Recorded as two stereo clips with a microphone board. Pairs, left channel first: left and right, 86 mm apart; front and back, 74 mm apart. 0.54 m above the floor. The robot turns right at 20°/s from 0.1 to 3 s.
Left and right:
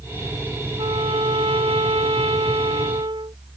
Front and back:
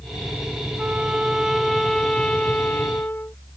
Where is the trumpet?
110° right; by 3.4 s 65° right.